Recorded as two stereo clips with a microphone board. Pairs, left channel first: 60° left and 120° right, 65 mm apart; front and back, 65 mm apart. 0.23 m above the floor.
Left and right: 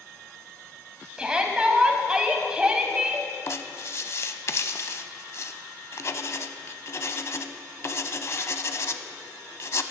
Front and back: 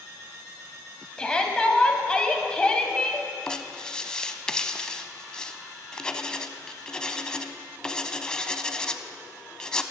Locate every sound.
1.2 s a shout: 60° right, 1.1 m
3.5 s writing: 70° left, 0.5 m